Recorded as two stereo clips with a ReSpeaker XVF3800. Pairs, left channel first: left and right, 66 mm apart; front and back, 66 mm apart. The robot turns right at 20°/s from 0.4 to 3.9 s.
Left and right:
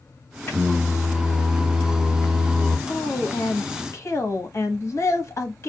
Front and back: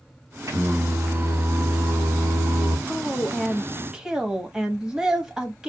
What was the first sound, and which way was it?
Singing, 140° left.